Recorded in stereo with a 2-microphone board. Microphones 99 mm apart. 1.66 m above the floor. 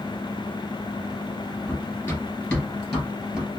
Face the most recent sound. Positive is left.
turn(degrees=-5)  # may be behind; listen again after turning